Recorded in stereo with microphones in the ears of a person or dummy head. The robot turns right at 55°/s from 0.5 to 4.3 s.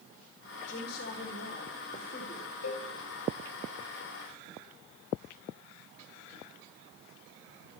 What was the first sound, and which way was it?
A woman speaking, 55° left.